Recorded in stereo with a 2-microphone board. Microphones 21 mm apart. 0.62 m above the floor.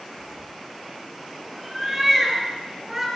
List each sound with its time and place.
0.2 s a cat meowing: 10° left (ahead or behind), 4 m; by 3.1 s 15° right (ahead or behind), 5.5 m